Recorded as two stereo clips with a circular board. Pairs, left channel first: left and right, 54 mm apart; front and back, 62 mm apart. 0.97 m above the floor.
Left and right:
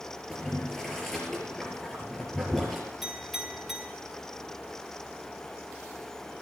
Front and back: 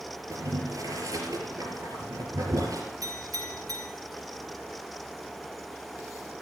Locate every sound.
0.3 s boiling: 175° left, 4 m
3.0 s a clink: 175° right, 5.5 m